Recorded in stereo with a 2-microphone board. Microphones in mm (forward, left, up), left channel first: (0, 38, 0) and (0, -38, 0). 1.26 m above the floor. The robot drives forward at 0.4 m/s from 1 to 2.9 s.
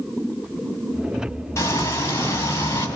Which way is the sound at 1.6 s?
35° left (ahead or behind).